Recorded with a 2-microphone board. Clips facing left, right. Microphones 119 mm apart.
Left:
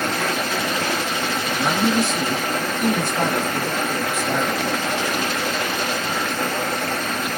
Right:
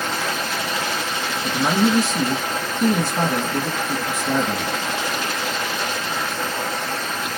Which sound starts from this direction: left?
Running water, at 0.0 s.